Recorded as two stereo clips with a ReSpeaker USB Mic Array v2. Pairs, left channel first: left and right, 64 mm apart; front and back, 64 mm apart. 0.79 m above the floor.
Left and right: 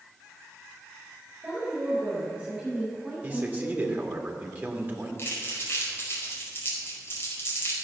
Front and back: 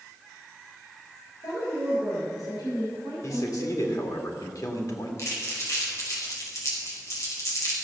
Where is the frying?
I don't hear frying.